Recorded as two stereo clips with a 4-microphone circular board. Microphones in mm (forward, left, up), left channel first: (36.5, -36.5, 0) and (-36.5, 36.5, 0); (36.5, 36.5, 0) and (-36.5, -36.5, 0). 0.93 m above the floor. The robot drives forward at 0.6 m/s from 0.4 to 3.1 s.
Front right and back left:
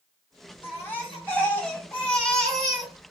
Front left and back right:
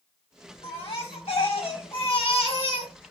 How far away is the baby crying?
About 2.5 m.